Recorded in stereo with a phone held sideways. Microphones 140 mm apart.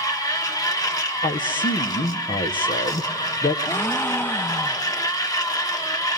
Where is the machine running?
25° left (ahead or behind), 1.3 m.